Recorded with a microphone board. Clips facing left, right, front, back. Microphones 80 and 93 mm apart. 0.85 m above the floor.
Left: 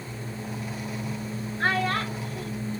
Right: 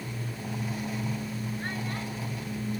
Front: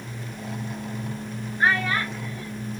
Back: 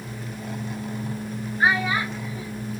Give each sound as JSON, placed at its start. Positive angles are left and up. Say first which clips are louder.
{"t": 1.6, "sound": "a child speaking", "louder": "left 9 dB, back 1 dB", "azimuth_deg": 100}